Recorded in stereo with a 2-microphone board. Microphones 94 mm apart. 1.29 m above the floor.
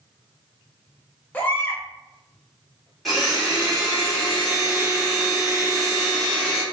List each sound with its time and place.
1.3 s a baby crying: 20° left (ahead or behind), 0.5 m
3.0 s a blender: 5° left (ahead or behind), 1.3 m